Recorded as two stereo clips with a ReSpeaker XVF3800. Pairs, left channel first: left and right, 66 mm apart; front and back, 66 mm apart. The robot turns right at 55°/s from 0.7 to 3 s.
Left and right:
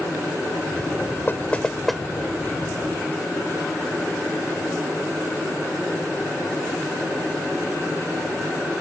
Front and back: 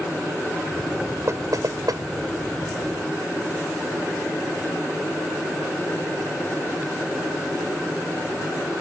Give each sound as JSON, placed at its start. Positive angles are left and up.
{"t": 1.3, "sound": "knocking", "azimuth_deg": 145}